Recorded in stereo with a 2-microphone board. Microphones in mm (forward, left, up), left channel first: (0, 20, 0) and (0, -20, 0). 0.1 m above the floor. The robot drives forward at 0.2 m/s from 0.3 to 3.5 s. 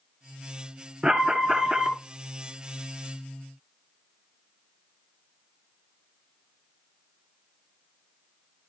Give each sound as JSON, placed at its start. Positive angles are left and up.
{"t": 1.0, "sound": "an alarm", "side_deg": -20, "distance_m": 1.4}